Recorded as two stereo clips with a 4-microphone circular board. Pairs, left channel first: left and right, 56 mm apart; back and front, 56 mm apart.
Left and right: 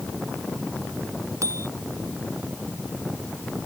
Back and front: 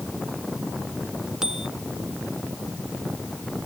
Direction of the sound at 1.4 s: 80° right.